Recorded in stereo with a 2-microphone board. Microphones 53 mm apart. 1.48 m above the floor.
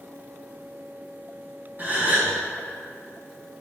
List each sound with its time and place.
1.8 s a gasp: 35° right (ahead or behind), 1.2 m